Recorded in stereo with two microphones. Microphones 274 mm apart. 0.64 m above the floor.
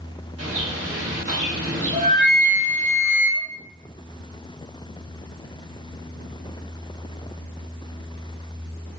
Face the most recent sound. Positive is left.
turn(degrees=-30)  # may be behind; listen again after turning